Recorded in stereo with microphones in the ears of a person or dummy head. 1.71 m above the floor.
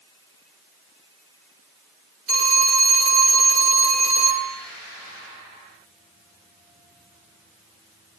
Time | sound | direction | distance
2.3 | a phone ringing | 5° right (ahead or behind) | 4 m